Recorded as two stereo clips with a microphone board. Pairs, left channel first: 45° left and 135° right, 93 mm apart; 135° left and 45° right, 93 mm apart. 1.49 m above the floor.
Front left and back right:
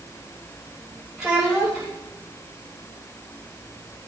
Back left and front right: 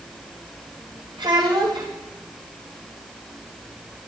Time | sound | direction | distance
1.2 | a child speaking | 50° right | 6 m